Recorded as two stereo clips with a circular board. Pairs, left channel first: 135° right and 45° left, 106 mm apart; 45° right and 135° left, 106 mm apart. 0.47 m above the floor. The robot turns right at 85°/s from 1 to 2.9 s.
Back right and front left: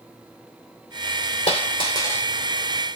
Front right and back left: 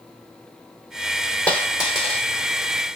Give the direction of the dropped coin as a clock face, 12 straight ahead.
4 o'clock.